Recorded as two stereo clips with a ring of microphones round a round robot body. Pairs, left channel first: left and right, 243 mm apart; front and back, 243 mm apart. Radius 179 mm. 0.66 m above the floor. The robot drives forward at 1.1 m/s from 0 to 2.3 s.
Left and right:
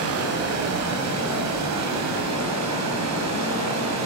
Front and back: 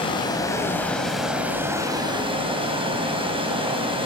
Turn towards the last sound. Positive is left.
turn(degrees=-110)